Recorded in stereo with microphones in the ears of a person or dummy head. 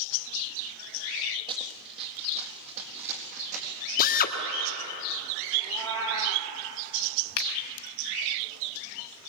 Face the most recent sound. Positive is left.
turn(degrees=75)  # may be behind; listen again after turning